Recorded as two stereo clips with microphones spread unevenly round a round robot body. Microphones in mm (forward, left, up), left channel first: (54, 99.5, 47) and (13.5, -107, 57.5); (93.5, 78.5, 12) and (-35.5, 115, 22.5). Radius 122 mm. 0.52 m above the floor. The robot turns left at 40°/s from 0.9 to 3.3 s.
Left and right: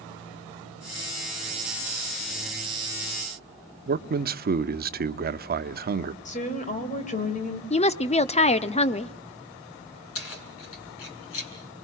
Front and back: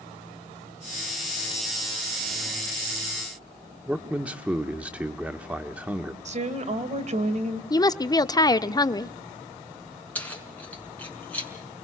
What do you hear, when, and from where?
3.9 s a man speaking: 115° right, 1.0 m
6.2 s a woman speaking: 135° left, 3 m
7.7 s a woman speaking: 30° left, 0.9 m
10.2 s keys jangling: 60° left, 5.5 m